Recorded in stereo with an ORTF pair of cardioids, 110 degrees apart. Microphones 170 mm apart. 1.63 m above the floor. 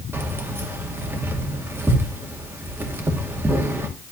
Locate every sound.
0.1 s keys jangling: 15° right, 2 m